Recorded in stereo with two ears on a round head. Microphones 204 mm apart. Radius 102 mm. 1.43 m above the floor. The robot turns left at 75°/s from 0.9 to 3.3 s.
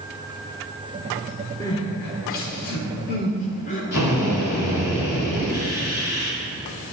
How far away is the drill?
About 3.5 m.